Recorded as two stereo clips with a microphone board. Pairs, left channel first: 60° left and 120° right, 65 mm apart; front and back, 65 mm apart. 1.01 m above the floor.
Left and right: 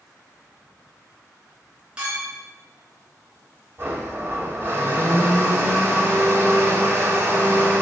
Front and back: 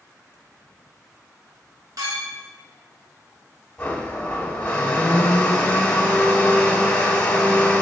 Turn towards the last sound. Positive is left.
turn(degrees=-70)